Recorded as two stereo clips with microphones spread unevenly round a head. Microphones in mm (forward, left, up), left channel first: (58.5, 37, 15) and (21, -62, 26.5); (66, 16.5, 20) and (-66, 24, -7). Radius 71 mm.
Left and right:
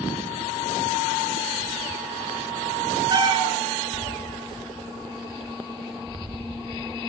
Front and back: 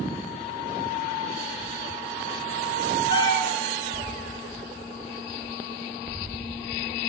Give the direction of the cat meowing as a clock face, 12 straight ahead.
2 o'clock.